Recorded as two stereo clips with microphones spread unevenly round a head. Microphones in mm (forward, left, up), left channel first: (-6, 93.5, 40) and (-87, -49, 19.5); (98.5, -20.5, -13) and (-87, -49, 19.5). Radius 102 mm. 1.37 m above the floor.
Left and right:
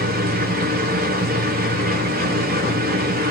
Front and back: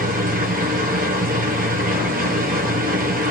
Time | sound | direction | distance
0.0 | a machine running | 125° right | 1.0 m